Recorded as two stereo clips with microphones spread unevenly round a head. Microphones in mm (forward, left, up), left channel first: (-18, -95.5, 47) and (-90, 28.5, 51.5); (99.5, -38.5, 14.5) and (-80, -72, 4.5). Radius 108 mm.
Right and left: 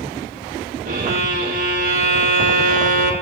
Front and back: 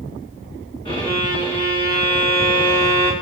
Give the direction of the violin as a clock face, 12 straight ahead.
9 o'clock.